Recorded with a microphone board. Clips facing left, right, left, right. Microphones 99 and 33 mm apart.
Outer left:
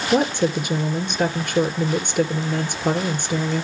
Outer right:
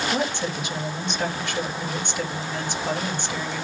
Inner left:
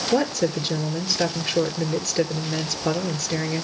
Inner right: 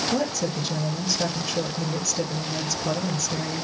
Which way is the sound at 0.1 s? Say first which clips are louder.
Outer left 7 dB, inner left 4 dB; 55° left (ahead or behind).